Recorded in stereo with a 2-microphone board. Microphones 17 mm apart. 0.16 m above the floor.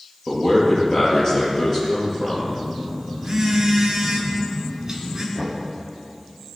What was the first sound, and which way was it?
A man speaking, 30° left (ahead or behind).